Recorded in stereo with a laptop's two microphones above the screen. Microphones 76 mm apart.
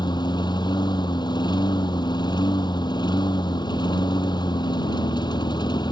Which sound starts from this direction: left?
A lawn mower, at 0.0 s.